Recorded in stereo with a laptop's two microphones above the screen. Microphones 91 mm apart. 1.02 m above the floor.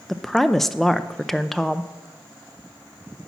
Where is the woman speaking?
Centre (ahead or behind), 0.6 m.